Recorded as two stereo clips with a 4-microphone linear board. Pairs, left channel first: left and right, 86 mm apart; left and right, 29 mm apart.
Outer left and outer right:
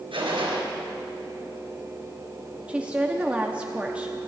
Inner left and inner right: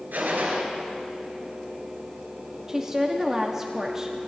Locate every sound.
0.1 s a gunshot: 85° right, 3.5 m
2.7 s a woman speaking: 15° right (ahead or behind), 1.0 m